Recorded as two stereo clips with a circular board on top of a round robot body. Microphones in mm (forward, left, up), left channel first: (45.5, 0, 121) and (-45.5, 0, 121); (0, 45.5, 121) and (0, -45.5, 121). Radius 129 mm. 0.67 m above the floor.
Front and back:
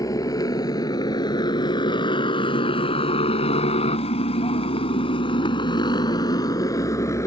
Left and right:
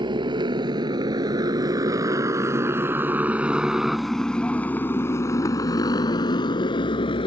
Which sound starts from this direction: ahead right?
A motorcycle, at 0.0 s.